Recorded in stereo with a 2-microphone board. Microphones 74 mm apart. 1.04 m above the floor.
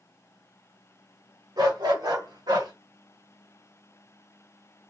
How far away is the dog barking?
About 1.8 m.